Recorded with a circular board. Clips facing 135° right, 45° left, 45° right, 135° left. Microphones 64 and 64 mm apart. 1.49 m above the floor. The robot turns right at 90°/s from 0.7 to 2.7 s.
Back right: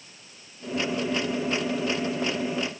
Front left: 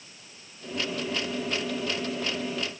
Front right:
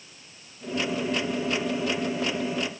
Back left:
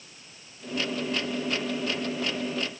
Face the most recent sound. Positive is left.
No sound to turn to.